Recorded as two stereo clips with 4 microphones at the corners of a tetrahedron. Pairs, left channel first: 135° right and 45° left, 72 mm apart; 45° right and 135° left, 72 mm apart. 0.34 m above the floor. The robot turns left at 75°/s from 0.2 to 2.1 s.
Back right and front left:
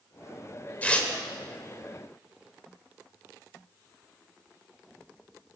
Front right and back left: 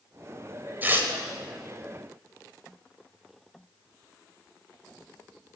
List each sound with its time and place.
0.8 s tearing paper: 175° left, 1.5 m; by 1.1 s 155° left, 1.5 m